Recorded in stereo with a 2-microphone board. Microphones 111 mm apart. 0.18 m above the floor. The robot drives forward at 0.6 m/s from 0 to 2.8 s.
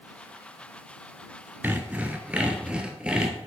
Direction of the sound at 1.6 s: 15° right (ahead or behind).